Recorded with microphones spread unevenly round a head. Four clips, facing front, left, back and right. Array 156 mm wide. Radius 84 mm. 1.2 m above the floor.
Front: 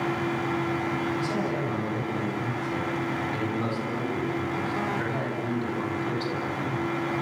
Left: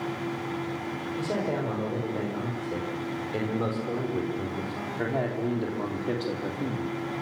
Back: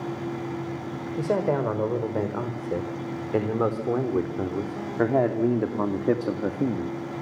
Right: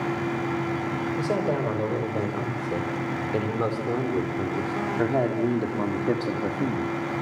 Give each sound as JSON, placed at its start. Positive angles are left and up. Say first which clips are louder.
{"t": 1.2, "sound": "a man speaking", "louder": "right 2 dB, back 4 dB", "azimuth_deg": -160, "distance_m": 5.5}